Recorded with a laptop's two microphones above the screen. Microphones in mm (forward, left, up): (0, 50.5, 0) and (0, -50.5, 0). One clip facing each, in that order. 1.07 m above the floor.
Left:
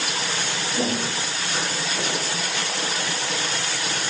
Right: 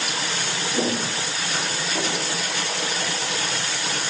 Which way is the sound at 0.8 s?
60° right (ahead or behind).